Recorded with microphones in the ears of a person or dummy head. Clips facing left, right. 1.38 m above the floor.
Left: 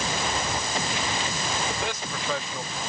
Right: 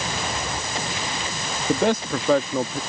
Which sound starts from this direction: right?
A man speaking, at 1.7 s.